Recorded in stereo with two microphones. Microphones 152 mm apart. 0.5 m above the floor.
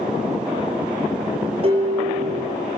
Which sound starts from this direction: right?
Dishes clattering, at 1.6 s.